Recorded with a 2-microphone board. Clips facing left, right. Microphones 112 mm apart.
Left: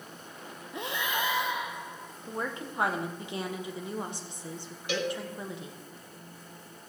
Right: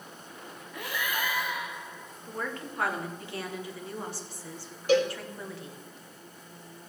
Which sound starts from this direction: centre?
A woman speaking, at 2.2 s.